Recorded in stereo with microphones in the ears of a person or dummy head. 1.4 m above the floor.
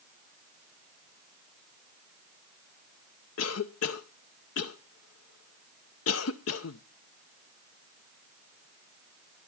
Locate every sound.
3.4 s a cough: 75° left (ahead or behind), 0.7 m